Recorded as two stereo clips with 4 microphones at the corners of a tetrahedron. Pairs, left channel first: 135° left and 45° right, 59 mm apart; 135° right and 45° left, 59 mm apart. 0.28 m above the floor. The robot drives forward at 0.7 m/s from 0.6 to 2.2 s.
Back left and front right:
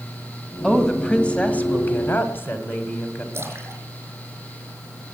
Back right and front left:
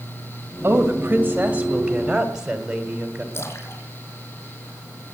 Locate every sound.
0.6 s a woman speaking: 55° left, 1.8 m; by 3.2 s 115° left, 1.7 m
3.3 s a splash: 95° right, 4 m